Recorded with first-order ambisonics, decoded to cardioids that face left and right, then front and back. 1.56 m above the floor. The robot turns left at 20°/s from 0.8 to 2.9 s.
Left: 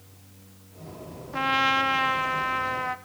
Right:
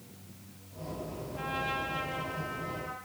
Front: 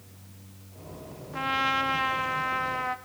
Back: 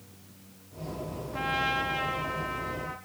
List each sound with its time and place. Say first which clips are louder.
1.3 s a trumpet: left 12 dB, front 3 dB; 85° left, 1.4 m; by 3.0 s 55° left, 1.4 m